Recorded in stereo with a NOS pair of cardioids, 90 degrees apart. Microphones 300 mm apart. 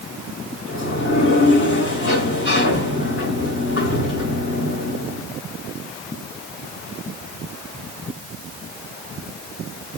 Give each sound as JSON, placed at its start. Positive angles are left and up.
{"t": 0.7, "sound": "a sliding door", "azimuth_deg": 40, "distance_m": 5.0}